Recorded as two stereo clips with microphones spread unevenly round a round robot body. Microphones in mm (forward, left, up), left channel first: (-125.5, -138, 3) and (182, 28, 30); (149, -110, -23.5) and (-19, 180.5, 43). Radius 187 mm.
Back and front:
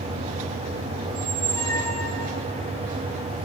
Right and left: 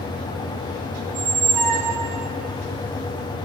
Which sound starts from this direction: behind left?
A squeak, at 1.1 s.